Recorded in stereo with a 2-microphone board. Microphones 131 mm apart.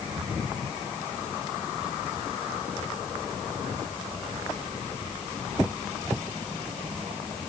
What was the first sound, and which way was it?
Only background noise.